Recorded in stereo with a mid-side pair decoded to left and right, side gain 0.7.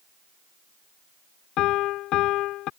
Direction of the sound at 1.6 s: 55° left.